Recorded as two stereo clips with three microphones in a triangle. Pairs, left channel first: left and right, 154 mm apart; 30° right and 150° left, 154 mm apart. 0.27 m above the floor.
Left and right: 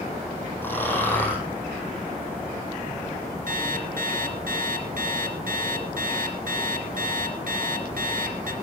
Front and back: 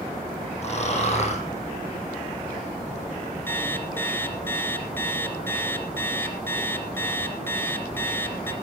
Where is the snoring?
15° left, 5.5 m.